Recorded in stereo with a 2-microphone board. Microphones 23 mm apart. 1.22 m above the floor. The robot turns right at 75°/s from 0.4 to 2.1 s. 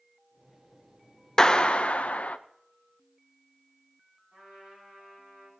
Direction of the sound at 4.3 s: 85° right.